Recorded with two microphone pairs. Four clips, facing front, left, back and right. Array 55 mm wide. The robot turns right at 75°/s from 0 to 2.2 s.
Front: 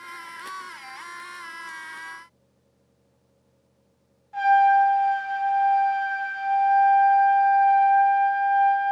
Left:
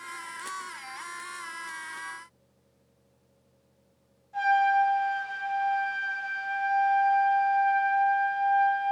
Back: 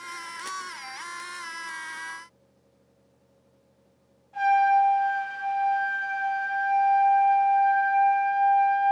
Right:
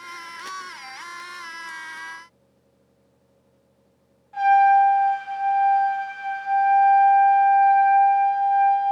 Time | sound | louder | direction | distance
4.3 | a trumpet | right 8 dB, front 3 dB | 60° right | 1.1 m